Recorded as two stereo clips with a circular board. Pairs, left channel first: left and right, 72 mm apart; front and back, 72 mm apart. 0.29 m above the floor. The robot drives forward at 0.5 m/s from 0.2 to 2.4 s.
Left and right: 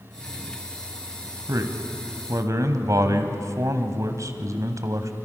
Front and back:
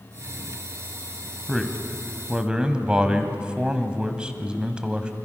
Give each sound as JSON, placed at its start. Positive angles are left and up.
{"t": 1.5, "sound": "a man speaking", "azimuth_deg": -85, "distance_m": 1.7}